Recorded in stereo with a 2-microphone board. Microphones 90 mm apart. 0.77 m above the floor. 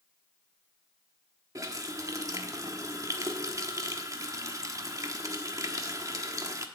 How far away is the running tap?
About 1.0 m.